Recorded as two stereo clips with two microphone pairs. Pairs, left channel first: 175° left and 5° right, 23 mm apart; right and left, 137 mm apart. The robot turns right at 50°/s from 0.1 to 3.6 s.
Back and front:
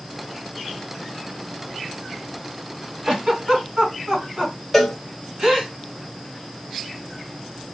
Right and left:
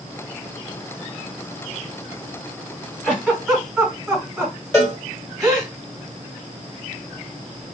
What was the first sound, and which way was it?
A giggle, 20° right.